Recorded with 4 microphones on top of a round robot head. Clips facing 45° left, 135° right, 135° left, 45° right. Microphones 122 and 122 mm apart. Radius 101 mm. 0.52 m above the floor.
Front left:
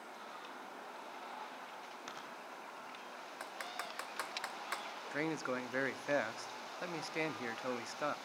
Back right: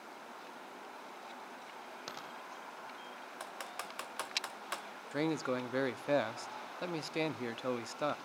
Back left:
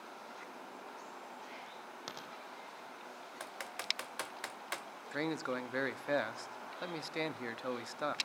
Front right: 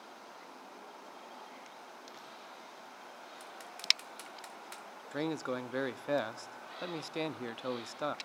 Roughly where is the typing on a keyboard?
Behind left.